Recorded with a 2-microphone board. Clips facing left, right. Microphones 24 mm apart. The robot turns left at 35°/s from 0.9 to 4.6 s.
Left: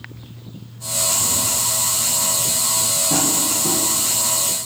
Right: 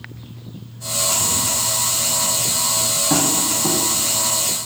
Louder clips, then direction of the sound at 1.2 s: Even; 30° right (ahead or behind).